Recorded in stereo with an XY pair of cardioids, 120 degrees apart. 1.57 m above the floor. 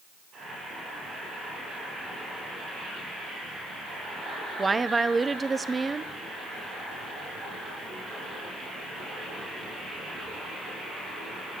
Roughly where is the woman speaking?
Ahead.